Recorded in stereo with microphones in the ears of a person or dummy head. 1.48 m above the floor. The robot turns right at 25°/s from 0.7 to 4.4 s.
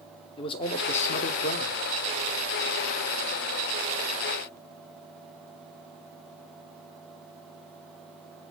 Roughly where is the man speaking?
Left.